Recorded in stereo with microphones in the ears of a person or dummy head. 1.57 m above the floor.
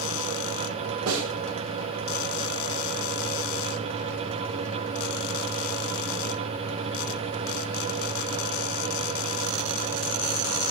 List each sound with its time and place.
1.1 s a snare drum: 80° right, 1.5 m